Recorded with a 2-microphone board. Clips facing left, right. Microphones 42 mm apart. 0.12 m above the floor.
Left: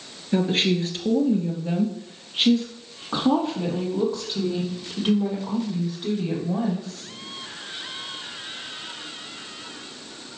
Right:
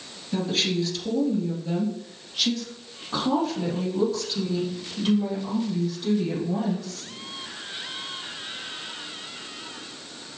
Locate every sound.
0.3 s a woman speaking: 35° left (ahead or behind), 2.0 m; by 7.1 s 25° left (ahead or behind), 5 m